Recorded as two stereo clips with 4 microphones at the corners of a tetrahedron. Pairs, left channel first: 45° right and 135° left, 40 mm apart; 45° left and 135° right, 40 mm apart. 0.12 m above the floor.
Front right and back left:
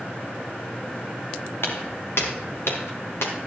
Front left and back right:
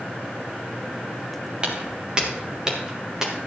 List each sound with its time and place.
1.6 s footsteps: 70° right, 3.5 m; by 3.3 s 55° right, 4.5 m